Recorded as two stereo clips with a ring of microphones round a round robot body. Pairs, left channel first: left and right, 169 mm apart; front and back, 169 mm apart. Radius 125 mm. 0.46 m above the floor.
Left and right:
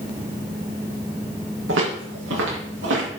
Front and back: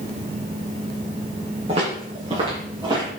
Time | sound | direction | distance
1.7 | footsteps | 110° right | 4 m